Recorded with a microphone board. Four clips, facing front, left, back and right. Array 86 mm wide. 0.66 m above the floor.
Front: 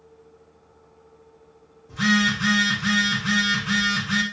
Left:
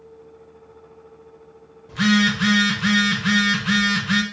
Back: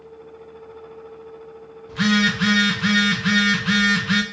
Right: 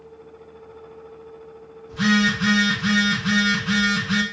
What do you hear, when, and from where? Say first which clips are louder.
1.9 s a phone buzzing: left 1 dB, back 2 dB; 140° left, 0.7 m